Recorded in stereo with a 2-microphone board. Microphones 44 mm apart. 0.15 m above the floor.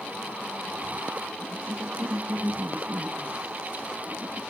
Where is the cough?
45° right (ahead or behind), 9.5 m.